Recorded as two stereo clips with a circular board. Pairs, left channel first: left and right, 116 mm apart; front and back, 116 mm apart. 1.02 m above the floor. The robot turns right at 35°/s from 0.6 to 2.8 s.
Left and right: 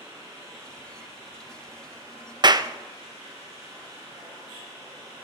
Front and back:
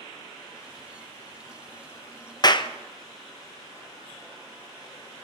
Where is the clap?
45° right, 0.6 m; by 2.7 s 40° right, 0.6 m.